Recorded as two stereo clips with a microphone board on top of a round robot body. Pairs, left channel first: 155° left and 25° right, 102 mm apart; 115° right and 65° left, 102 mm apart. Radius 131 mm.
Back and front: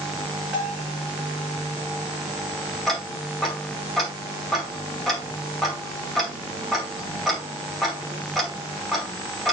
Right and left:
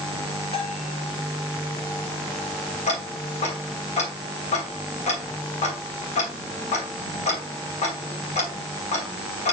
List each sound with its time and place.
0.5 s a bell: 100° right, 6 m
2.9 s ticking: 115° right, 2.5 m